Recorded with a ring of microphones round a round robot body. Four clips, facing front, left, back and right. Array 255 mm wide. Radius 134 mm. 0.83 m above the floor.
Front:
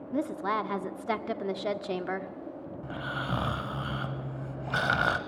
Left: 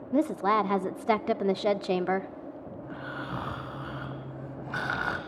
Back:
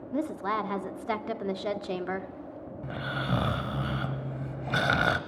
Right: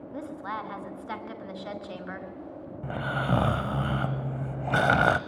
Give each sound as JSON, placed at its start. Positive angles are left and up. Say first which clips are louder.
{"t": 0.1, "sound": "a woman speaking", "louder": "left 11 dB, even", "azimuth_deg": 90, "distance_m": 1.7}
{"t": 2.8, "sound": "snoring", "louder": "right 9 dB, back 2 dB", "azimuth_deg": -105, "distance_m": 1.2}